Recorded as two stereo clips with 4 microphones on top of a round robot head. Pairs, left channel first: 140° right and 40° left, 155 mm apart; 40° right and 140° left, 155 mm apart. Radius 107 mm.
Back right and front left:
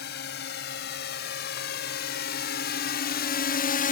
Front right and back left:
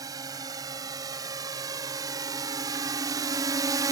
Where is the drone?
155° right.